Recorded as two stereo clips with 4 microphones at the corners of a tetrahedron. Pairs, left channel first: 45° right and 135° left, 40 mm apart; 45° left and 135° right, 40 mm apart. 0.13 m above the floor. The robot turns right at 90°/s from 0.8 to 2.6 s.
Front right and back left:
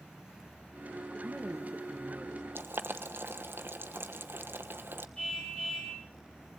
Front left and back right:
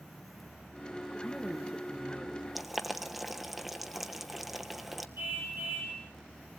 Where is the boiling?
135° left, 1.2 m; by 5.1 s 140° left, 1.2 m.